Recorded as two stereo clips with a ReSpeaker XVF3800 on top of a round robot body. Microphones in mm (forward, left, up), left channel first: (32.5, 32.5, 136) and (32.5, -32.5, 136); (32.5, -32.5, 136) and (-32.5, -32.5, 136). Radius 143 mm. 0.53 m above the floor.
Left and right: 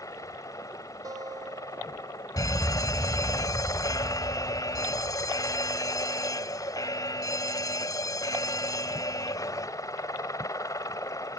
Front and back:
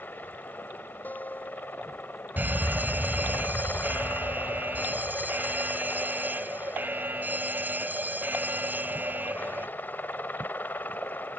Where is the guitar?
60° right.